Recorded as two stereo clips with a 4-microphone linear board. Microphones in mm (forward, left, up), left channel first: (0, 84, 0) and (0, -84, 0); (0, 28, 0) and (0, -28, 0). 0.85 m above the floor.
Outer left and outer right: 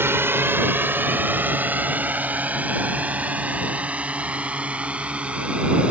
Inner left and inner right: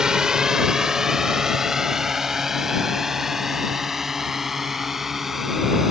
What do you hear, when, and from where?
0.0 s a drone: 15° right (ahead or behind); by 5.9 s 5° right (ahead or behind)